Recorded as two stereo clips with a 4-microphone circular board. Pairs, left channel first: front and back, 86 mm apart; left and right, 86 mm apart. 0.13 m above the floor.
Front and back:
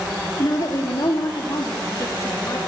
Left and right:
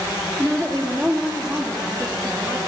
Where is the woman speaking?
30° right, 2.5 m; by 2.6 s 50° right, 5 m.